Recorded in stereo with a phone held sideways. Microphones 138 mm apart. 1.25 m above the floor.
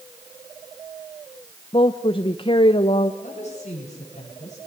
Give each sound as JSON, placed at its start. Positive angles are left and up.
{"t": 1.7, "sound": "a woman speaking", "side_deg": 40, "distance_m": 0.8}
{"t": 3.2, "sound": "a woman speaking", "side_deg": 55, "distance_m": 8.0}